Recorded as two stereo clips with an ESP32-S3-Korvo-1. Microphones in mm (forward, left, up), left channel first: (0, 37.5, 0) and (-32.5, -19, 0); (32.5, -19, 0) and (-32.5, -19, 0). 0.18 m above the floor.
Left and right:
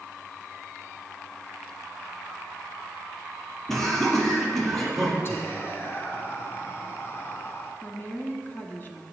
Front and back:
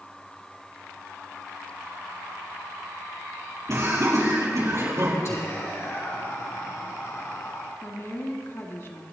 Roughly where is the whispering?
Ahead left.